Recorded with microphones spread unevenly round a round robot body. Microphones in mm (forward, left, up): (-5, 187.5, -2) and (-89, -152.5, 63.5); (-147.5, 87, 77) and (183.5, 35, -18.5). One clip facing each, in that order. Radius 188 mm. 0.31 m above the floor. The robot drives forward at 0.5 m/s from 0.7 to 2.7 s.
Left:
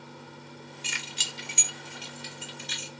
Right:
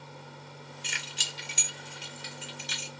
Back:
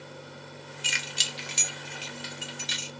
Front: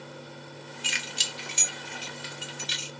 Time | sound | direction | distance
0.8 | keys jangling | 135° left | 0.7 m